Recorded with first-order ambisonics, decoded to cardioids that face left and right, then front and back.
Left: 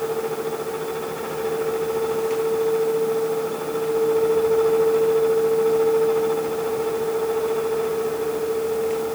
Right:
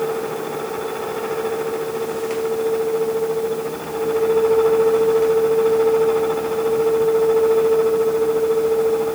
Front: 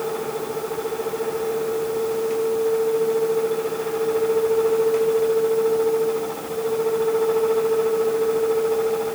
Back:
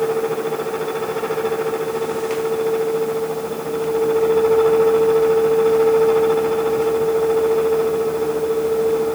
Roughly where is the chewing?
I don't hear chewing.